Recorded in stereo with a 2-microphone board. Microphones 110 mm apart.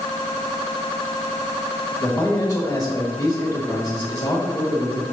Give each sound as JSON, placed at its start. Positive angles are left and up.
{"t": 2.0, "sound": "a man speaking", "side_deg": 30, "distance_m": 1.5}